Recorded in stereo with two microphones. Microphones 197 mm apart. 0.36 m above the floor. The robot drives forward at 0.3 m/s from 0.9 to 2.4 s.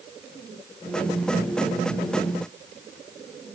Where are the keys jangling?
I don't hear keys jangling.